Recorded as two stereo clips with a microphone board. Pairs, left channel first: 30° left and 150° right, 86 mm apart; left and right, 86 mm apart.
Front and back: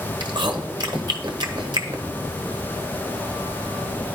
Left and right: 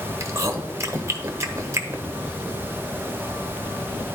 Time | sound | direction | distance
0.2 | chewing | 140° right | 0.9 m